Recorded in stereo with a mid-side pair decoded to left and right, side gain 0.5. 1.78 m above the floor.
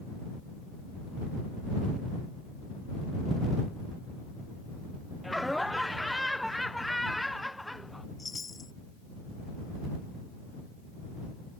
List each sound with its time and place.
5.2 s laughter: 5° left
8.2 s a chime: 25° left